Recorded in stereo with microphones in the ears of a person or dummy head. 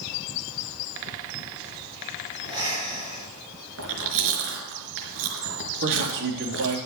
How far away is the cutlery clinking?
No cutlery clinking in this recording.